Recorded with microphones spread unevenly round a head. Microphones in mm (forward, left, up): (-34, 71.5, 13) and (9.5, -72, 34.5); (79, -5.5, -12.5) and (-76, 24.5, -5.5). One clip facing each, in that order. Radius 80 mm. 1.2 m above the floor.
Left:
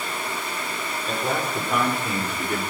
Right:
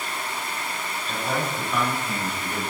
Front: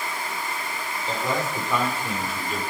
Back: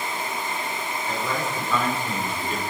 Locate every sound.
1.1 s a man speaking: 55° left, 4.5 m; by 2.6 s 80° left, 3.5 m